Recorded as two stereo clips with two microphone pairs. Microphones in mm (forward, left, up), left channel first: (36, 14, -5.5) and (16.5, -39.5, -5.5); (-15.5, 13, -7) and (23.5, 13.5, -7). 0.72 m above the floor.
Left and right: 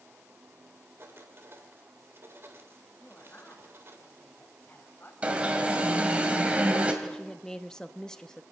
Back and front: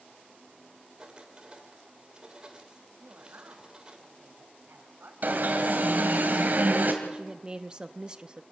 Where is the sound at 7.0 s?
5° left, 0.8 m.